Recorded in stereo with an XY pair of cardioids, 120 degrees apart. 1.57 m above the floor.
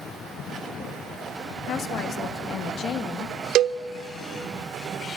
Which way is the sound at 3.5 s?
65° right.